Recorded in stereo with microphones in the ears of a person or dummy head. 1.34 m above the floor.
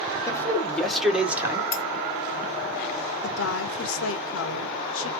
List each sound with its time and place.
0.3 s a man speaking: 15° left (ahead or behind), 1.5 m; by 1.6 s 20° right (ahead or behind), 1.5 m
1.7 s cutlery clinking: 15° left (ahead or behind), 2.5 m
3.2 s a woman speaking: 75° left (ahead or behind), 1.4 m